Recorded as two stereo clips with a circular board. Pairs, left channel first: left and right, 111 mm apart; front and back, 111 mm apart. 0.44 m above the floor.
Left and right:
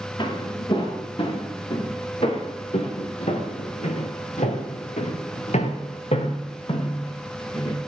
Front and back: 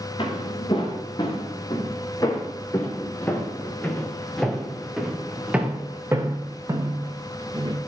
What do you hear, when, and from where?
0.2 s footsteps: 45° left, 5.5 m; by 7.8 s 130° left, 4 m